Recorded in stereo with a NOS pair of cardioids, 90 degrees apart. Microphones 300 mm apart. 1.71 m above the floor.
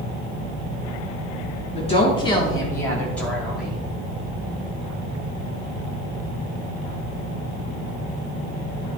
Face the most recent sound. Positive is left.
turn(degrees=-5)